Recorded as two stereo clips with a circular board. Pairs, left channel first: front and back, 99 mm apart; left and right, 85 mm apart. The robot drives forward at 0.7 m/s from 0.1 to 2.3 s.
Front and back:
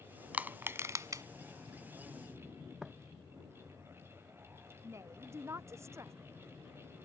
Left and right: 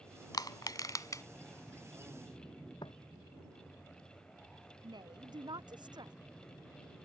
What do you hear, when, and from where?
0.3 s crushing: 110° left; by 1.2 s 135° left
2.8 s footsteps: 95° left
4.8 s a woman speaking: 120° right